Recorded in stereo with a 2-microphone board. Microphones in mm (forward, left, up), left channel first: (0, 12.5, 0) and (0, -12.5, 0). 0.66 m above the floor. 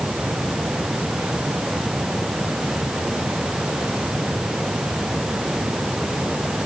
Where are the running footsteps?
I don't hear running footsteps.